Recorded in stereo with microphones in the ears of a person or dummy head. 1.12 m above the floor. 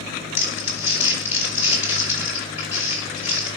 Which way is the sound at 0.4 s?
10° right (ahead or behind).